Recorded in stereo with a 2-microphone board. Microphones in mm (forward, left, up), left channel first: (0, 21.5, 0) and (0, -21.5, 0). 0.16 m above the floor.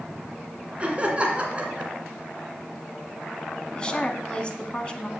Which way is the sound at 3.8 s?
20° left (ahead or behind).